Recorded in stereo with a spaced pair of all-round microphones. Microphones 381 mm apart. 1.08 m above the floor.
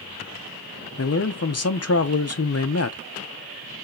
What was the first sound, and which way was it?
A man speaking, 40° left (ahead or behind).